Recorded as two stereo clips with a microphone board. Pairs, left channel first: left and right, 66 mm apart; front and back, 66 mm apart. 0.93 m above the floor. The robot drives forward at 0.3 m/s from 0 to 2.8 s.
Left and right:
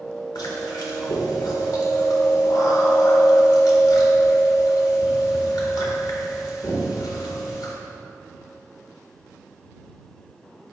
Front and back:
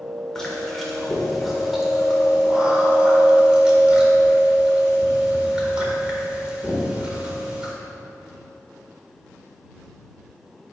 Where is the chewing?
80° left, 1.8 m; by 7.7 s 105° left, 1.8 m.